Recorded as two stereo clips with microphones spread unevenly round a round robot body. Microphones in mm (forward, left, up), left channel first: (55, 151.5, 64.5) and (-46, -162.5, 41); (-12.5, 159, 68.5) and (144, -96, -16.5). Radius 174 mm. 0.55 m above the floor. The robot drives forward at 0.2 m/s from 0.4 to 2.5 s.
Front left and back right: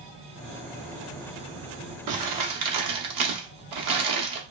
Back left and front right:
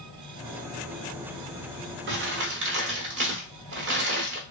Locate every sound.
2.1 s crumpling: 90° right, 0.7 m; by 4.4 s 100° right, 0.7 m